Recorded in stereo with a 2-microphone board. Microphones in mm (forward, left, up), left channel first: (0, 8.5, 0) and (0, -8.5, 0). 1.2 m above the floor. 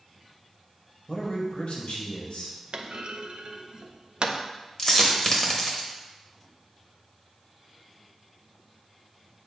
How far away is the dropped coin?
About 1.2 m.